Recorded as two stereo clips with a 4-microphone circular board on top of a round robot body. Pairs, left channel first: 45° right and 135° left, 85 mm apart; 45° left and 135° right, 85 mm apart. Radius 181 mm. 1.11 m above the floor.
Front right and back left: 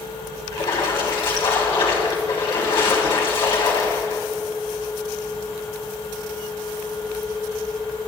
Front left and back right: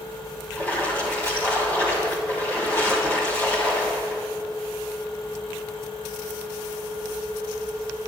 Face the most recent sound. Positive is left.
turn(degrees=-20)